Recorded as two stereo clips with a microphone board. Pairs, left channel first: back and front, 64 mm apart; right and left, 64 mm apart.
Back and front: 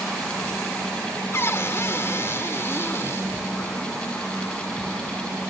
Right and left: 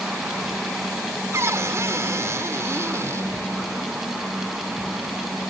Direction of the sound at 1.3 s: 130° left.